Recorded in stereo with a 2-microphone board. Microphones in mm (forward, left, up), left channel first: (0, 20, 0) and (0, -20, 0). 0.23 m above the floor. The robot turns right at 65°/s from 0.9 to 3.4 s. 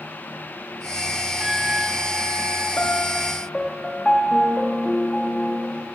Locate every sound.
1.4 s a flute: 175° right, 3.5 m; by 2.7 s 95° right, 3.5 m
2.8 s a piano: 125° left, 4.5 m; by 5.9 s 165° left, 4.5 m